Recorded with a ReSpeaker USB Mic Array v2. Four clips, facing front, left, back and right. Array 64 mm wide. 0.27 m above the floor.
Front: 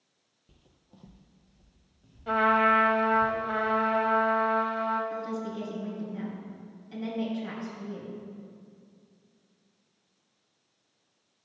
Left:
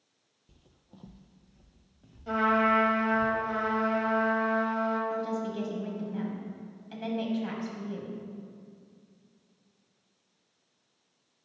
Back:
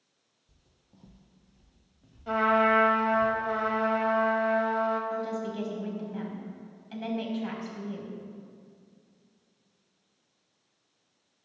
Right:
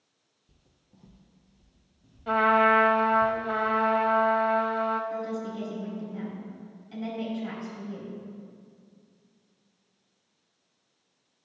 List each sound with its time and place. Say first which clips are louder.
0.5 s footsteps: left 6 dB, front 5 dB; 20° left, 0.5 m; by 3.3 s 115° left, 3 m
2.3 s a trumpet: right 4 dB, front 1 dB; 75° right, 1.1 m
5.1 s a woman speaking: left 1 dB, back 2 dB; 145° left, 1.7 m